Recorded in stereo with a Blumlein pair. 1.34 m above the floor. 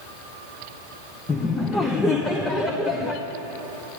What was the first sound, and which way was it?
Laughter, 15° left.